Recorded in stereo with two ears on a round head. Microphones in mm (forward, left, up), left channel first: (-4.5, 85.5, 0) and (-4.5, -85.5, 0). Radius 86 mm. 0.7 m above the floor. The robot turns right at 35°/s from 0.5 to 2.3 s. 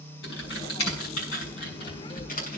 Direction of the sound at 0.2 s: 70° left (ahead or behind).